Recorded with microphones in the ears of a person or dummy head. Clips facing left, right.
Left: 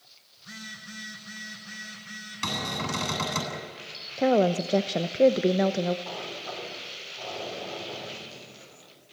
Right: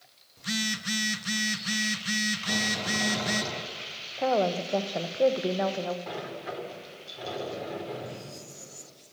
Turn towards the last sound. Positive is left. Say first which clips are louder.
# right 1 dB
turn(degrees=-25)  # may be behind; listen again after turning